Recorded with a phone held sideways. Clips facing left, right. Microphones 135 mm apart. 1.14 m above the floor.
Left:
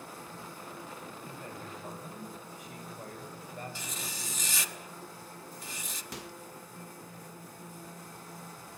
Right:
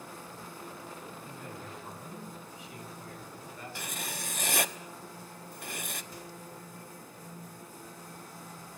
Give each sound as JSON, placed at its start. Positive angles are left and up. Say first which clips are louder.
{"t": 1.2, "sound": "a man speaking", "louder": "even", "side_deg": 50, "distance_m": 8.0}
{"t": 3.8, "sound": "writing", "louder": "right 2 dB", "side_deg": -60, "distance_m": 1.0}
{"t": 6.1, "sound": "a microwave", "louder": "left 2 dB", "side_deg": 85, "distance_m": 0.9}